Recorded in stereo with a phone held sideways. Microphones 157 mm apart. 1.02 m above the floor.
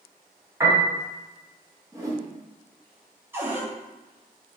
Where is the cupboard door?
15° right (ahead or behind), 1.1 m.